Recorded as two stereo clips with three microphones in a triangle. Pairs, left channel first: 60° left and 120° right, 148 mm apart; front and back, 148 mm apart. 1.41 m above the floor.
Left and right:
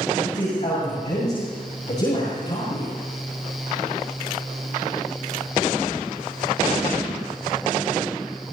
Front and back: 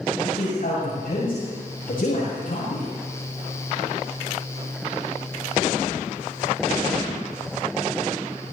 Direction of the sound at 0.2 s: 20° left.